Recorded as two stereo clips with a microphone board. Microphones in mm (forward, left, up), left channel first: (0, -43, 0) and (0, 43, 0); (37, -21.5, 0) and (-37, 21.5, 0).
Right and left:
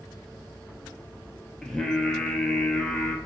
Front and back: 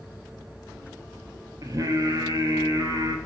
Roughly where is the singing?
Behind.